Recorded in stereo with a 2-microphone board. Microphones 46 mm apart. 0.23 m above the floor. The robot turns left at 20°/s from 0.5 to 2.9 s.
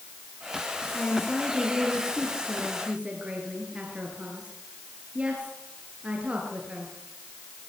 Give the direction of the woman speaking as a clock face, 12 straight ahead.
11 o'clock.